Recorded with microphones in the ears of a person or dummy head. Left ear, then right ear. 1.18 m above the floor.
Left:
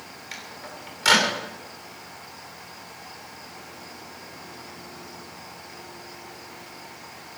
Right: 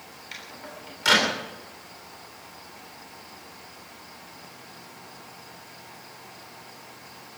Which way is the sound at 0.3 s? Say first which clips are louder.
Left 1 dB; 20° left (ahead or behind).